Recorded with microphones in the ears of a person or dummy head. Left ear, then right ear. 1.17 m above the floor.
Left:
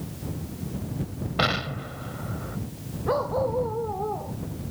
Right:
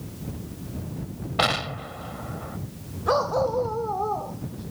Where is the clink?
I don't hear a clink.